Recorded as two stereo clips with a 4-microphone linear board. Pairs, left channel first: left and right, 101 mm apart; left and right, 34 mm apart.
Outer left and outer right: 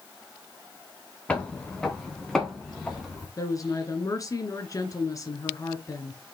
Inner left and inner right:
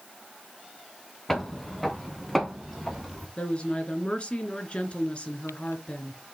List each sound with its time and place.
1.3 s footsteps: 10° left (ahead or behind), 1.9 m; by 3.3 s centre (ahead or behind), 3.5 m
3.4 s a woman speaking: 35° left (ahead or behind), 1.9 m